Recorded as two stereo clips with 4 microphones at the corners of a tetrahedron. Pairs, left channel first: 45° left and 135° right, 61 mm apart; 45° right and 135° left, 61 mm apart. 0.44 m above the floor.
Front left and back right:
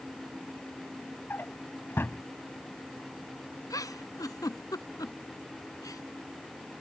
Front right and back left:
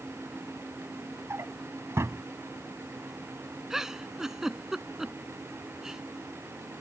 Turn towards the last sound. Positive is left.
turn(degrees=50)